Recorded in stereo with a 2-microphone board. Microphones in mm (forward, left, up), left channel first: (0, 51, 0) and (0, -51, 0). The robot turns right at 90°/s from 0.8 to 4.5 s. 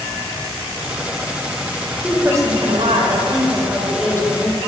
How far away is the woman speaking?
About 6.5 m.